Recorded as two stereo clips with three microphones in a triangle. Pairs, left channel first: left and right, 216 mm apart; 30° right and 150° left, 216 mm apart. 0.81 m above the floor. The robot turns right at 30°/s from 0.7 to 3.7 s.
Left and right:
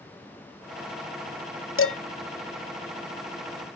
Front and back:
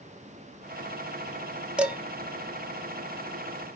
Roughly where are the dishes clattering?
Ahead left.